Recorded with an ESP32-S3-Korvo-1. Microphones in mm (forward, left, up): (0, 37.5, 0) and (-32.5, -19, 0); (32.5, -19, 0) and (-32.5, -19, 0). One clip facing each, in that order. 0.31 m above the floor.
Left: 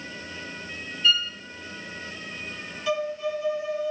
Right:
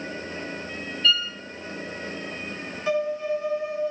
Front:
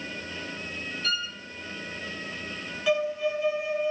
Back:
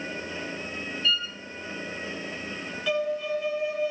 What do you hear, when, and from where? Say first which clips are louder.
1.0 s a violin: even, back 3 dB; 20° right, 0.6 m
2.9 s a violin: right 2 dB, front 2 dB; 80° right, 1.7 m